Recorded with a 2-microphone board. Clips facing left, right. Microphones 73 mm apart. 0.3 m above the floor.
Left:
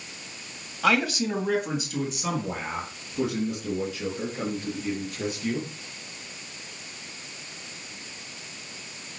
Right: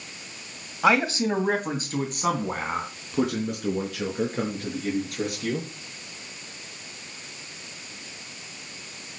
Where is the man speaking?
20° right (ahead or behind), 1.8 m; by 5.7 s 60° right (ahead or behind), 6 m.